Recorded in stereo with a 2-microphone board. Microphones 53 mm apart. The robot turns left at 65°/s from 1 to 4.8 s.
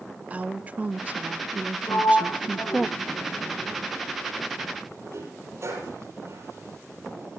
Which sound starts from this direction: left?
A sliding door, at 1.9 s.